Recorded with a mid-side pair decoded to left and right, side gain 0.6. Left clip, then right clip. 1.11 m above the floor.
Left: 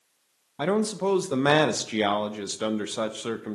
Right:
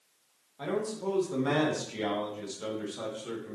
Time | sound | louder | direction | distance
0.6 | a man speaking | left 7 dB | 60° left | 0.8 m